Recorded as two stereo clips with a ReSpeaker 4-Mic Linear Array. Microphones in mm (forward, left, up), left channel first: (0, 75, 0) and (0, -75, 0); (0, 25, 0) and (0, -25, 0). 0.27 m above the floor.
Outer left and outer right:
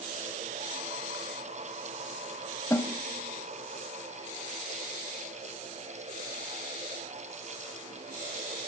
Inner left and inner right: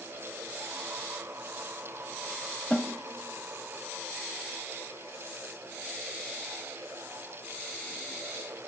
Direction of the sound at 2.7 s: 20° left (ahead or behind).